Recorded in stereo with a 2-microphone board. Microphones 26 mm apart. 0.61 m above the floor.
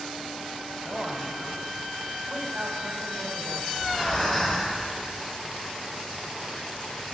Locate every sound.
0.8 s a man speaking: 55° right (ahead or behind), 2 m
3.7 s breathing: centre (ahead or behind), 5.5 m